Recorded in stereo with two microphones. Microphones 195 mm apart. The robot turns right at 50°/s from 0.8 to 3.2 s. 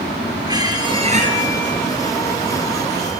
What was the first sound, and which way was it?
A squeak, 20° right (ahead or behind).